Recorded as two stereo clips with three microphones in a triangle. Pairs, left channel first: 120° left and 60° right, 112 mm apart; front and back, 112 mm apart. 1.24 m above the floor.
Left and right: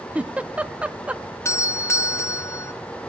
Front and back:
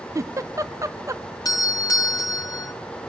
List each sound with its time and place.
0.1 s a giggle: 135° right, 0.7 m
1.4 s a doorbell: 55° left, 0.9 m